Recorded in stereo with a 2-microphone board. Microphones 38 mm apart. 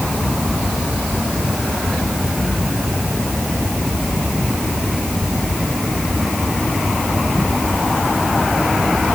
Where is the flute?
I don't hear a flute.